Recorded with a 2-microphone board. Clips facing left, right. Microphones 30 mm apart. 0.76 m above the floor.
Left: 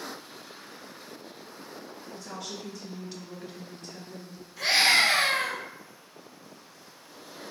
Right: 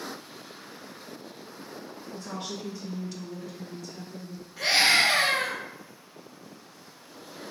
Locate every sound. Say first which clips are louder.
2.1 s a woman speaking: right 3 dB; 50° right (ahead or behind), 0.9 m; by 4.5 s 65° left (ahead or behind), 1.3 m
4.6 s a scream: even; 25° right (ahead or behind), 1.1 m